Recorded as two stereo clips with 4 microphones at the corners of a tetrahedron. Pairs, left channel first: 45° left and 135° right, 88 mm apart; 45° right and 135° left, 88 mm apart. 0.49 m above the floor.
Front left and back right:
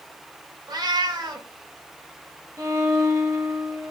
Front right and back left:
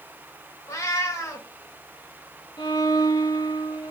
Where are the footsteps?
I don't hear footsteps.